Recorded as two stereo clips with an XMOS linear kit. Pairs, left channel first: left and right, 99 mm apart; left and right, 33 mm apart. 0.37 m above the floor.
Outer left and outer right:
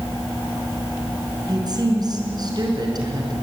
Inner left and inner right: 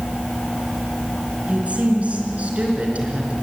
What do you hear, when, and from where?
1.5 s a woman speaking: 40° right (ahead or behind), 4.5 m